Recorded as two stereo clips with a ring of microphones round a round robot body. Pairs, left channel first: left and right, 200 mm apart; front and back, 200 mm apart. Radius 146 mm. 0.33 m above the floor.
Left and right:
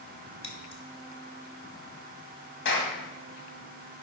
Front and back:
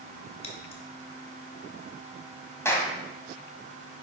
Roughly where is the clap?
Left.